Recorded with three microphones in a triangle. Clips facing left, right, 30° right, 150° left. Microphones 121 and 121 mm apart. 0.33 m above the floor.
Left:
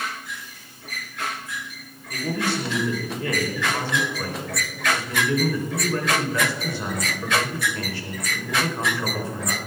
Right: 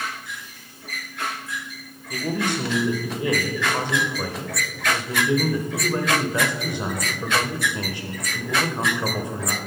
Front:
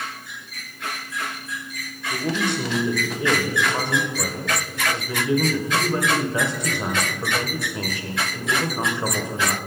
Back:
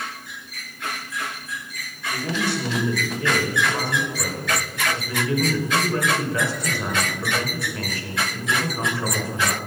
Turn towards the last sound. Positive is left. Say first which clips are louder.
# right 1 dB, front 1 dB
turn(degrees=-55)